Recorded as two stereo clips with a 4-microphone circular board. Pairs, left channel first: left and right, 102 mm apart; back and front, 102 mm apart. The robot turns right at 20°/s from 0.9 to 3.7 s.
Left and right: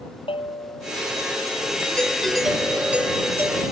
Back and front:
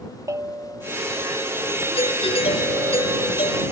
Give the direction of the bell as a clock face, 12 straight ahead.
10 o'clock.